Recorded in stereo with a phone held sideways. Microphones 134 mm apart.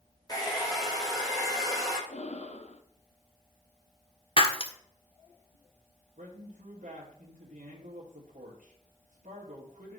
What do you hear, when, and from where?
0.3 s a hair dryer: 25° left (ahead or behind), 3.5 m
2.1 s breathing: 55° left (ahead or behind), 0.9 m
4.4 s breaking glass: 45° left (ahead or behind), 1.3 m
6.2 s a man speaking: 85° right, 2.5 m